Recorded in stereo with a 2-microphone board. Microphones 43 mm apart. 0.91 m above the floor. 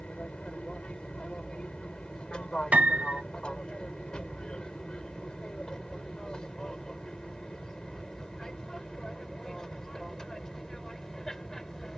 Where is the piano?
30° right (ahead or behind).